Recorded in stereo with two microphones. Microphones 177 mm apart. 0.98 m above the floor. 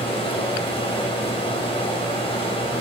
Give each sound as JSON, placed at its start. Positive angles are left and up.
{"t": 0.0, "sound": "running water", "side_deg": 30, "distance_m": 2.5}